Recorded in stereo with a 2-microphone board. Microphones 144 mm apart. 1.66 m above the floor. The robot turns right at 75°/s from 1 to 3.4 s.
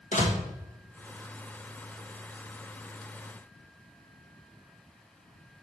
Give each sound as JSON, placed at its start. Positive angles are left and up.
{"t": 0.1, "sound": "a door slam", "side_deg": 60, "distance_m": 1.5}